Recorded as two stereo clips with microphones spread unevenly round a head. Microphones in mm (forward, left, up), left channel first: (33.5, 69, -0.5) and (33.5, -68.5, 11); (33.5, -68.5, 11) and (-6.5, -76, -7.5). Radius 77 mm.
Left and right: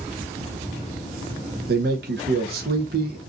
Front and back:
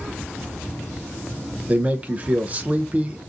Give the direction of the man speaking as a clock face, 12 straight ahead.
4 o'clock.